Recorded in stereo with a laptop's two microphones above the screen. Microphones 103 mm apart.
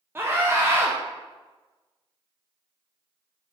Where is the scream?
25° right (ahead or behind), 0.6 m.